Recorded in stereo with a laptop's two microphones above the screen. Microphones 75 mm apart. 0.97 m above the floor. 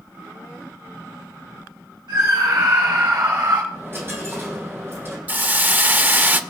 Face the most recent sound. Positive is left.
turn(degrees=-25)  # may be behind; listen again after turning